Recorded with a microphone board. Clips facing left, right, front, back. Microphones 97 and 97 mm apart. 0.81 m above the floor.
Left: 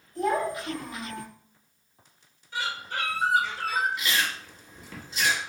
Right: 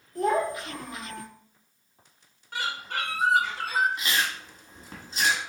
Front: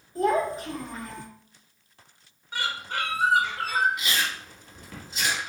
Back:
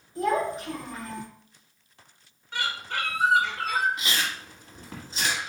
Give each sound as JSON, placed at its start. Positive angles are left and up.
{"t": 0.1, "sound": "a child speaking", "azimuth_deg": -50, "distance_m": 2.0}
{"t": 2.5, "sound": "a bird", "azimuth_deg": -80, "distance_m": 1.5}
{"t": 4.0, "sound": "chewing", "azimuth_deg": -130, "distance_m": 1.5}